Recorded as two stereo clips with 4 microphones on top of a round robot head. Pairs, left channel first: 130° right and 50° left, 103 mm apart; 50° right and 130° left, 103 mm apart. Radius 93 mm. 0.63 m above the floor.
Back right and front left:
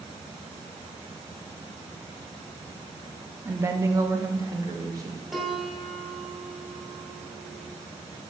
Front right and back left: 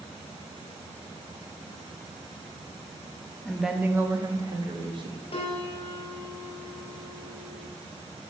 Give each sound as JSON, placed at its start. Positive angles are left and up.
{"t": 3.5, "sound": "a woman speaking", "azimuth_deg": 20, "distance_m": 0.5}
{"t": 5.3, "sound": "a piano", "azimuth_deg": -35, "distance_m": 0.9}